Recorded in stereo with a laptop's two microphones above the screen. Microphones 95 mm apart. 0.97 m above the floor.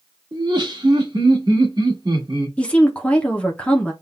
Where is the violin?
I don't hear a violin.